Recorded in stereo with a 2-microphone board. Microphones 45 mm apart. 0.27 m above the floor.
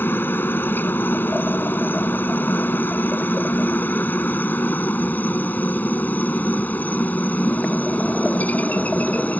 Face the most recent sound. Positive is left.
turn(degrees=40)  # may be behind; listen again after turning